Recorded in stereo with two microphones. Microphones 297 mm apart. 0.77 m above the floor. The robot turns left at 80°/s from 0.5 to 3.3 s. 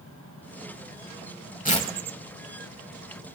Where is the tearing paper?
30° left (ahead or behind), 1.0 m; by 1.9 s 10° left (ahead or behind), 1.0 m.